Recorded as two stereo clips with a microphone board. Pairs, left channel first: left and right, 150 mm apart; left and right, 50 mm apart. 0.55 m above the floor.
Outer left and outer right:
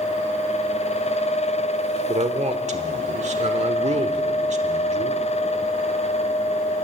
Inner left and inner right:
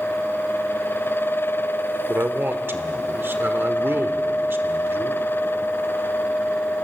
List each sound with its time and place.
2.1 s a man speaking: 50° right (ahead or behind), 1.4 m